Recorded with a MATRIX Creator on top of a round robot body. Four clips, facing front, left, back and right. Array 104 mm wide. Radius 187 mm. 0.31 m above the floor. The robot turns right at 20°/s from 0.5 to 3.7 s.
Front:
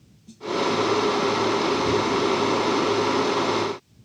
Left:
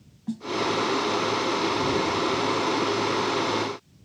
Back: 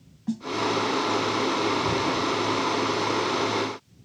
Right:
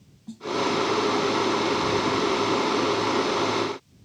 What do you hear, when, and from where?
0.3 s a snare drum: 155° left